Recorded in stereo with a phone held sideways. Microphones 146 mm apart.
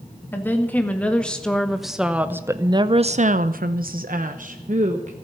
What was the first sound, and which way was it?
A woman speaking, 15° left (ahead or behind).